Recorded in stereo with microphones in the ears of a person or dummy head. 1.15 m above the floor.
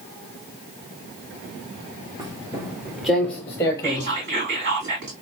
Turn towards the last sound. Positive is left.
turn(degrees=-55)  # may be behind; listen again after turning